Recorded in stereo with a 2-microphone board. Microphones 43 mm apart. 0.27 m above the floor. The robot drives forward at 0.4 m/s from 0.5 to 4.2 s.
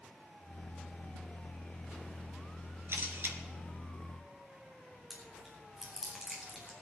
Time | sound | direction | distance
2.9 | a camera shutter | 60° right (ahead or behind) | 2.5 m
5.1 | chewing | 10° right (ahead or behind) | 4 m